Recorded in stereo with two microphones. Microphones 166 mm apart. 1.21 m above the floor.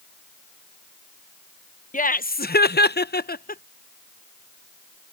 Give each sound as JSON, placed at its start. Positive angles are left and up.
{"t": 1.9, "sound": "laughter", "side_deg": 55}